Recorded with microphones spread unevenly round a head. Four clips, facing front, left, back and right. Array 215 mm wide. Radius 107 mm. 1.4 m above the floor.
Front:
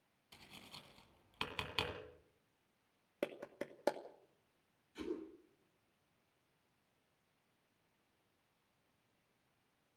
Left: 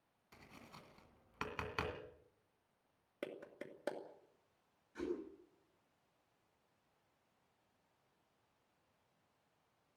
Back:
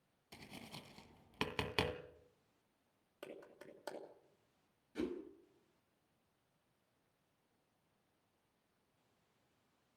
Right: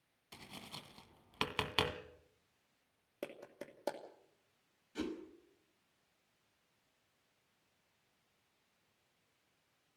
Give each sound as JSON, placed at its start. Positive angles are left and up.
{"t": 0.3, "sound": "tapping", "azimuth_deg": -145, "distance_m": 2.0}
{"t": 3.2, "sound": "a clap", "azimuth_deg": 0, "distance_m": 2.5}
{"t": 5.0, "sound": "a whoosh", "azimuth_deg": -150, "distance_m": 6.0}